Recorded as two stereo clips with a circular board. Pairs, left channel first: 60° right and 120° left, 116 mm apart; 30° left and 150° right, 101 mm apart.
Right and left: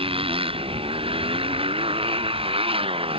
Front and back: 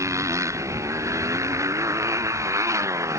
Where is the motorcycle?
150° left.